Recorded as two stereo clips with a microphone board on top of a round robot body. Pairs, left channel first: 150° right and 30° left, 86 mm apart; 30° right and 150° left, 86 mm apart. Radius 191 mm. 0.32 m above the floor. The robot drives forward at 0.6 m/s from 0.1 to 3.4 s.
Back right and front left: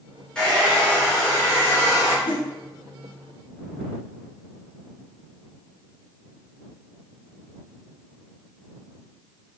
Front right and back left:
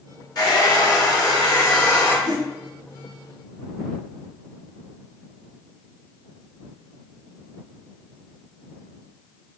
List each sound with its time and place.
0.3 s a hair dryer: 70° right, 2.5 m; by 2.1 s 100° right, 2 m
2.2 s a whoosh: 165° right, 0.8 m